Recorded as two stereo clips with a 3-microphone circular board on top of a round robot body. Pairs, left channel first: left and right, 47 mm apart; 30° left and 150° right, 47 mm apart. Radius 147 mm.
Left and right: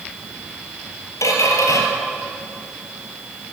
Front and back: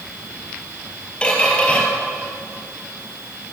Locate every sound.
1.2 s a squeak: 100° left, 3 m